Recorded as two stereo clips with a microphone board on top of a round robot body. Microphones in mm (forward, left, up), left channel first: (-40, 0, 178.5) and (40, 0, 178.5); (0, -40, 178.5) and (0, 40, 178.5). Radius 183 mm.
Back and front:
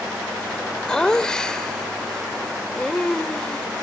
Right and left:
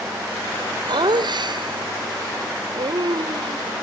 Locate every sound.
0.9 s laughter: 100° left